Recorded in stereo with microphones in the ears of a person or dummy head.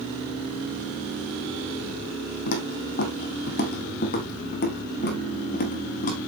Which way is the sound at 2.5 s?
60° left (ahead or behind).